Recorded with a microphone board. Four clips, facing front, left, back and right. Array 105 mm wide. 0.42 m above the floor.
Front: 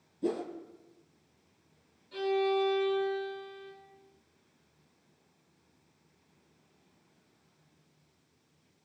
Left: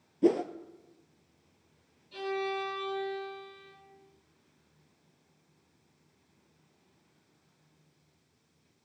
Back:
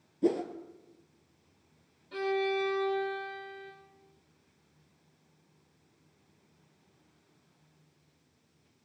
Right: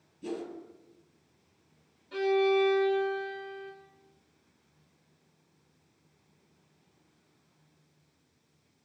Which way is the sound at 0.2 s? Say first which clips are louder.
Left 12 dB, back 4 dB; 110° left.